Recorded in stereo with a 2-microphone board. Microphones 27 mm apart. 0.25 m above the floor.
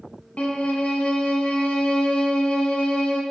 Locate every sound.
0.4 s a violin: 65° left (ahead or behind), 0.6 m